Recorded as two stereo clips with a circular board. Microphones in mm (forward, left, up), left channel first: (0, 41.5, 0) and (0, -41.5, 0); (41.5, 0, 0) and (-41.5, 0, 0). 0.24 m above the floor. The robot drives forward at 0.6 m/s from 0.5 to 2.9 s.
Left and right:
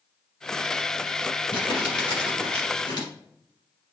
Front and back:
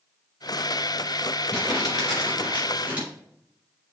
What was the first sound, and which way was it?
Crumpling, 90° left.